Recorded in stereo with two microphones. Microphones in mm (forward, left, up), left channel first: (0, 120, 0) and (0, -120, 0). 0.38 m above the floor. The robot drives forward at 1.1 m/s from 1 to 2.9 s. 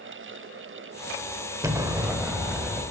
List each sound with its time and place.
1.6 s an explosion: 15° right (ahead or behind), 1.1 m; by 2.8 s 5° right (ahead or behind), 2 m